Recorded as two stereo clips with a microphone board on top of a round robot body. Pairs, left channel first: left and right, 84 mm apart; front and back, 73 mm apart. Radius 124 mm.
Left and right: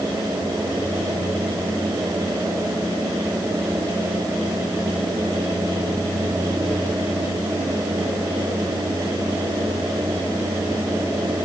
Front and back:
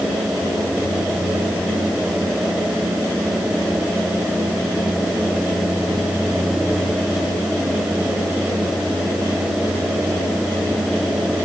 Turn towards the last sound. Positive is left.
No sound to turn to.